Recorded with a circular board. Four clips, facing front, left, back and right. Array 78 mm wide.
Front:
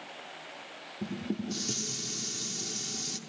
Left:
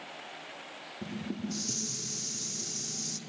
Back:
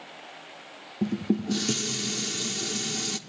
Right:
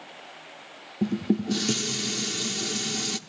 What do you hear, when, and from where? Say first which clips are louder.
1.0 s dishes clattering: right 12 dB, back 8 dB; 125° right, 1.2 m